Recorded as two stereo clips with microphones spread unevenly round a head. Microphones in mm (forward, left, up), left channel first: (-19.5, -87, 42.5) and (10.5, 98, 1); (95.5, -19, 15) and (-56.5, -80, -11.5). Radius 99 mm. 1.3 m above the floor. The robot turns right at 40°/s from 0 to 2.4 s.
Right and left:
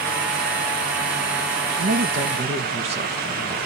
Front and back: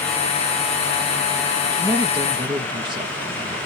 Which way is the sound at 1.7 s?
105° left.